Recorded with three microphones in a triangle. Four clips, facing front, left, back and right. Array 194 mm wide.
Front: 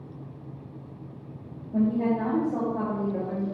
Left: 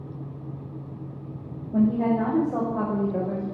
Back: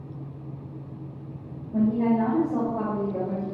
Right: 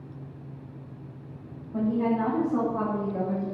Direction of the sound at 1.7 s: 85° left.